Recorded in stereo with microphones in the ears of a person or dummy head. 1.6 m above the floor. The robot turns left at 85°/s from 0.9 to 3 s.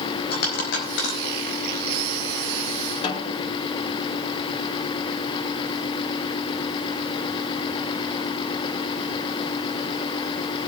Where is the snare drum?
35° left (ahead or behind), 2.5 m.